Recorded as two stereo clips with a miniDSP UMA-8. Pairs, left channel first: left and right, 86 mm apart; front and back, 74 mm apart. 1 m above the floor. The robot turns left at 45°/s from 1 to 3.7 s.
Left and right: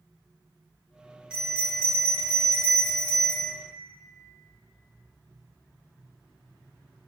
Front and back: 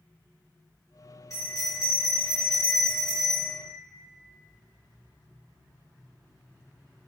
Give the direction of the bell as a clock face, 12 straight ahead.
12 o'clock.